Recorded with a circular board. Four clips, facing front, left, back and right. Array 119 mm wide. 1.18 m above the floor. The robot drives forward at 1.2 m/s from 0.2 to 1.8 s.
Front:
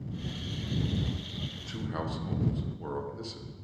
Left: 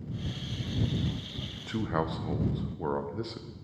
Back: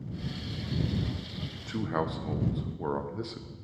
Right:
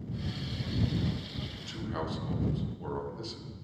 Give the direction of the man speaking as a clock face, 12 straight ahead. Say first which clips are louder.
Left 7 dB, back 6 dB; 9 o'clock.